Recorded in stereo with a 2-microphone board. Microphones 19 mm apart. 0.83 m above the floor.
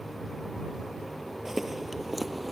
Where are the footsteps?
20° right (ahead or behind); by 2.5 s 5° right (ahead or behind).